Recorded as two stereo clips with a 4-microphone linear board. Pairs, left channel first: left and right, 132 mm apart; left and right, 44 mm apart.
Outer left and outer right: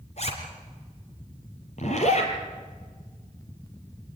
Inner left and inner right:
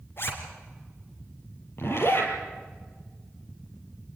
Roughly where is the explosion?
No explosion in this recording.